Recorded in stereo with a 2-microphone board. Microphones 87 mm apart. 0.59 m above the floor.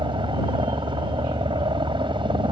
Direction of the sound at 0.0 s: 65° right (ahead or behind).